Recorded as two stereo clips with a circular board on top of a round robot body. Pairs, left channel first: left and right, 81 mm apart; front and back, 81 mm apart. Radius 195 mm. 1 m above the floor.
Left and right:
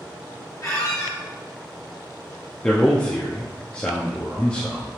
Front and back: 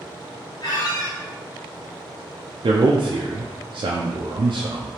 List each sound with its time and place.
0.6 s a squeak: 35° left, 0.9 m
2.6 s a man speaking: 165° left, 0.5 m